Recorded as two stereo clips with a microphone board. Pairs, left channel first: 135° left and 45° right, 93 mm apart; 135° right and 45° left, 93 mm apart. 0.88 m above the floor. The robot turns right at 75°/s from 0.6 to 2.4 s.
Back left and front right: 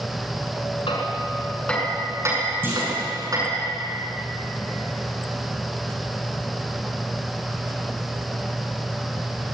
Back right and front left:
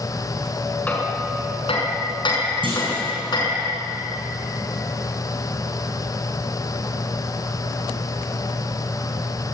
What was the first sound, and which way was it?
Hammering, 150° left.